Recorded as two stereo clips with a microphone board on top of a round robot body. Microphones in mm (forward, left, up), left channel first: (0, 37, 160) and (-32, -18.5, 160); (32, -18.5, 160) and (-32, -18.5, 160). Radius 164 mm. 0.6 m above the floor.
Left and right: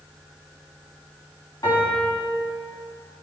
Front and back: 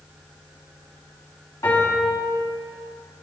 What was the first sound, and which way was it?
A piano, 40° left.